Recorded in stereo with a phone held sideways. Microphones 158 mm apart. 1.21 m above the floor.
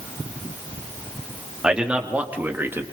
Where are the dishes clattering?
I don't hear dishes clattering.